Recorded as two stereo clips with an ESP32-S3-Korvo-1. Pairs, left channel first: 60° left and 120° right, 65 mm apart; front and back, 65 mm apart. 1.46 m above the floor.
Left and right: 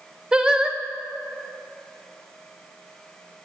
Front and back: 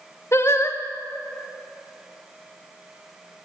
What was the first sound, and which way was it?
Singing, 45° right.